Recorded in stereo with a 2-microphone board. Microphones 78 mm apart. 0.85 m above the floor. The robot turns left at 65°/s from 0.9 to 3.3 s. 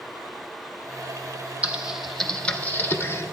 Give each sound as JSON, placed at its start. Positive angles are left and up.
{"t": 1.6, "sound": "typing on a keyboard", "side_deg": -15, "distance_m": 0.6}